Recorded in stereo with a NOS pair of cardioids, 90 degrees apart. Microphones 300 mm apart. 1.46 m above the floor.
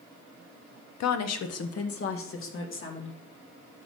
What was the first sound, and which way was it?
A woman speaking, 65° left.